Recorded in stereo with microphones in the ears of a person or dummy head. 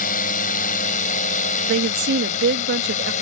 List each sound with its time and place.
0.0 s a drone: 45° left (ahead or behind); by 3.2 s 40° left (ahead or behind)
1.7 s a woman speaking: 50° right (ahead or behind)